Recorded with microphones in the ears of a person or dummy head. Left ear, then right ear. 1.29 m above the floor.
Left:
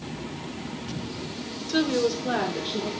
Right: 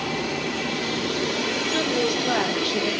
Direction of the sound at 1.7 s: Centre (ahead or behind).